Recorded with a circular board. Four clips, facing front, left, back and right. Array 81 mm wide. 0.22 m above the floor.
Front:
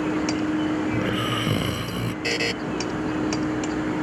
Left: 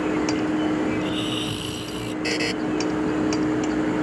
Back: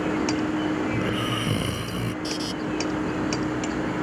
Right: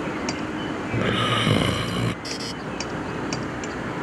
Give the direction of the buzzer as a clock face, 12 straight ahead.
11 o'clock.